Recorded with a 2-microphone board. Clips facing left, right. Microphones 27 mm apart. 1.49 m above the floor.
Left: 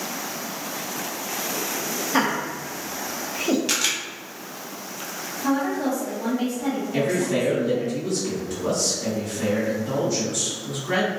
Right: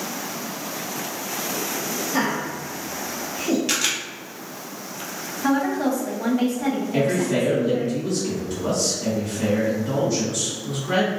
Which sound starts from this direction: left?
Laughter, at 2.1 s.